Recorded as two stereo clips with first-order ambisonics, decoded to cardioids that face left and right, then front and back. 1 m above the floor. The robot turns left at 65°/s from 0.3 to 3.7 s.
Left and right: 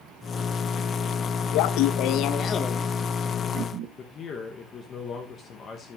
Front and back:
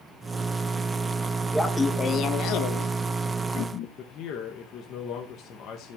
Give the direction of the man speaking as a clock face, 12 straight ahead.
11 o'clock.